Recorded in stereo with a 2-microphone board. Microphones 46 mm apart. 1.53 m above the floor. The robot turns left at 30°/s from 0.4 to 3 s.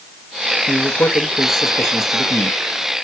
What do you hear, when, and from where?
0.7 s a man speaking: 120° left, 1.4 m; by 2.6 s 60° left, 1.4 m